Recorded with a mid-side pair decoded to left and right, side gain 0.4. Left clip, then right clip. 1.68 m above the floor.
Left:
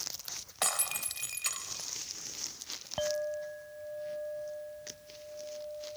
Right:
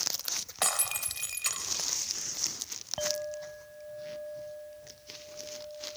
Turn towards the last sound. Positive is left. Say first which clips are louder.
# left 1 dB
turn(degrees=20)